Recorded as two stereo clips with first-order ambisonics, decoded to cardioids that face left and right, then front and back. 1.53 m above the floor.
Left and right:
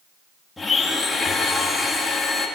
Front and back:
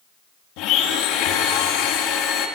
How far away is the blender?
About 2.5 m.